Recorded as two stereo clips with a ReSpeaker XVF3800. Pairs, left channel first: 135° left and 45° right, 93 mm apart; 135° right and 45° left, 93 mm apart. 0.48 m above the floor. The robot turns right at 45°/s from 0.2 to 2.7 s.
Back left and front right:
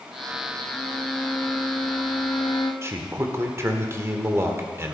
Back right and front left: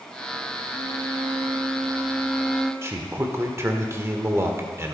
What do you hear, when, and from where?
0.7 s a violin: 45° left, 1.4 m; by 2.7 s 135° left, 1.4 m
2.8 s a man speaking: straight ahead, 1.5 m